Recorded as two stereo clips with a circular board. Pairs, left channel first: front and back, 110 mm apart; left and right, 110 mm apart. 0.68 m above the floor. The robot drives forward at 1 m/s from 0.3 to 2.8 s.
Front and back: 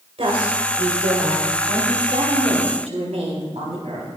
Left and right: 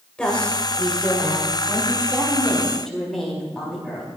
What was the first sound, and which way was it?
A woman speaking, 170° left.